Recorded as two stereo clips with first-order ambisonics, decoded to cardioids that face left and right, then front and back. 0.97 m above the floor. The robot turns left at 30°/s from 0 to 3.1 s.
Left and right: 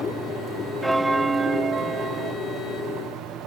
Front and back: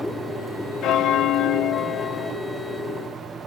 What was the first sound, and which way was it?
A bell, 10° right.